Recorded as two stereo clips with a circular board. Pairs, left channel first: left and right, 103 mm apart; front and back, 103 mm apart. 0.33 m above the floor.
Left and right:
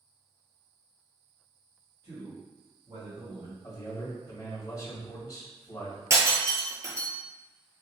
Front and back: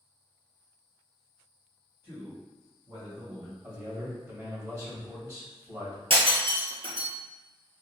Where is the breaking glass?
150° right, 1.2 m.